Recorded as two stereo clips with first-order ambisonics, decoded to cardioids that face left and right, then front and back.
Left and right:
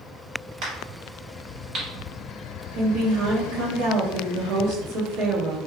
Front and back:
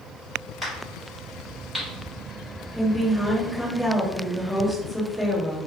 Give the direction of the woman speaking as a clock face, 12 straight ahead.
3 o'clock.